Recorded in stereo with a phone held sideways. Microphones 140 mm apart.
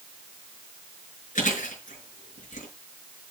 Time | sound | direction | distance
1.4 | chewing | 65° left (ahead or behind) | 5.5 m